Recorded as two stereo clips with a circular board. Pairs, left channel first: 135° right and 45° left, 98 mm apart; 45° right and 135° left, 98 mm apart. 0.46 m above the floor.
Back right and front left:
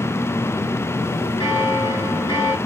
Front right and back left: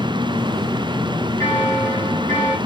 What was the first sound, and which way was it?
A bell, 100° right.